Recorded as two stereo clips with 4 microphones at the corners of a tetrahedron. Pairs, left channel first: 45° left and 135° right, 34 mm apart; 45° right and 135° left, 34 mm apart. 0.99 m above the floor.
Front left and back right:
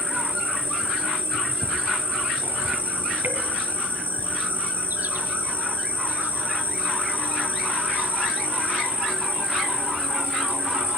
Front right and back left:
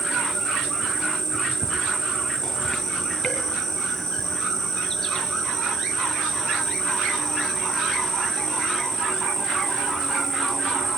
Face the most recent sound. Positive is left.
turn(degrees=-125)